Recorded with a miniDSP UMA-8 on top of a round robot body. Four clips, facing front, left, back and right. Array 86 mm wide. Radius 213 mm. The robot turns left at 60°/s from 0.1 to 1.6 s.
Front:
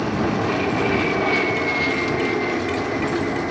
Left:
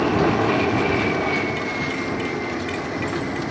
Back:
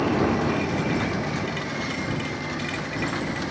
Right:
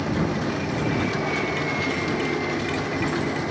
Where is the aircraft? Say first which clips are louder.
Left 6 dB, front 1 dB; 90° left; by 3.5 s straight ahead.